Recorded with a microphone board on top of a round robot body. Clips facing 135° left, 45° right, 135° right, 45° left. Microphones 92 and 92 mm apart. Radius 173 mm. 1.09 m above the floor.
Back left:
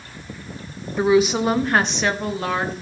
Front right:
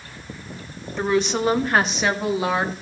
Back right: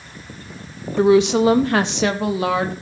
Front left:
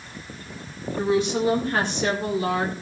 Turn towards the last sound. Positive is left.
turn(degrees=-125)